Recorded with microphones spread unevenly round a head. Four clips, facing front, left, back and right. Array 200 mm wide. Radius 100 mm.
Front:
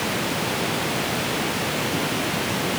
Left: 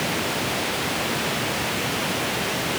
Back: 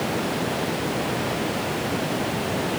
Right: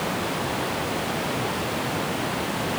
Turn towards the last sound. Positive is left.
No sound to turn to.